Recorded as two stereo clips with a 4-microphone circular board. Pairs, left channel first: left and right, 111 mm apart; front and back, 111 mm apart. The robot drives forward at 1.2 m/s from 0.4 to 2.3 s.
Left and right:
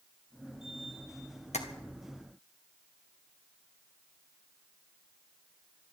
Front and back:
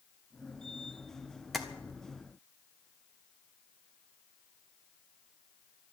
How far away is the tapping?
About 1.7 m.